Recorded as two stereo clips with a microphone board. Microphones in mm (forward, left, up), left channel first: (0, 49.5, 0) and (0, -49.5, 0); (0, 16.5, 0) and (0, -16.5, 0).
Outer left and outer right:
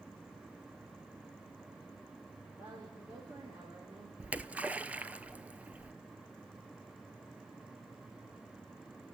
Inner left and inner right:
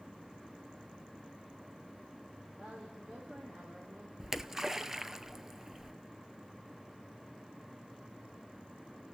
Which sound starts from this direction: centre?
A splash, at 4.2 s.